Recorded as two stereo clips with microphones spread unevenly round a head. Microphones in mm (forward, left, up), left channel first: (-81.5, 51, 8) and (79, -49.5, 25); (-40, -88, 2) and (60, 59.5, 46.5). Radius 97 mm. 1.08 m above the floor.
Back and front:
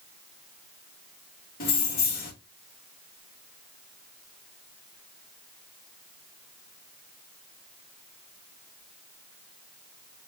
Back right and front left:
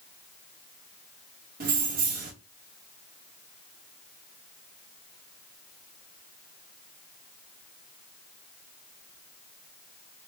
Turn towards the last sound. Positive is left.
turn(degrees=100)